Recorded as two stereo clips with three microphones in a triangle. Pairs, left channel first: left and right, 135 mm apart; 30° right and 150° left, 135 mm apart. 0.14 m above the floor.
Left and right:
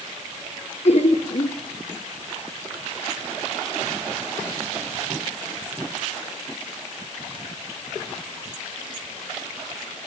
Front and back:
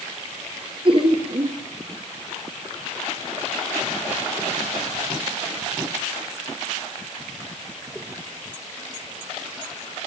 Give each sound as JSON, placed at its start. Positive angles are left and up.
{"t": 0.8, "sound": "laughter", "azimuth_deg": 110, "distance_m": 2.5}